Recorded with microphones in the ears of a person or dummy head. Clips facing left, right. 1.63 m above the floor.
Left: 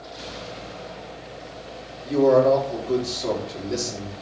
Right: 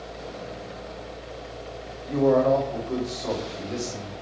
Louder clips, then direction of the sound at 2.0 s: Left 3 dB; 60° left (ahead or behind).